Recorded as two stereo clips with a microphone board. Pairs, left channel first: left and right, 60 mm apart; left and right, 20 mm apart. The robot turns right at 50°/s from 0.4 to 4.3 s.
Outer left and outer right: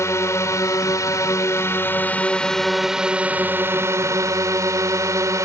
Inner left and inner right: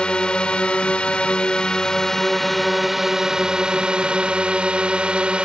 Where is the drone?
65° left; by 5.5 s 100° right.